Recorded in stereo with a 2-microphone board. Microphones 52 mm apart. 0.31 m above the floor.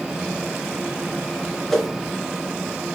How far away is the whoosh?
About 3 m.